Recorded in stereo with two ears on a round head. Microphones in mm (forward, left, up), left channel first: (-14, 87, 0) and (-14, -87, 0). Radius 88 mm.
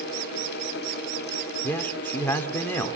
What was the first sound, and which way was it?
A man speaking, 10° left (ahead or behind).